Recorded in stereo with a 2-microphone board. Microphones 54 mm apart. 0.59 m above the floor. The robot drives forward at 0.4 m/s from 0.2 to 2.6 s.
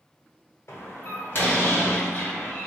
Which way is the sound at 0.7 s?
50° left (ahead or behind).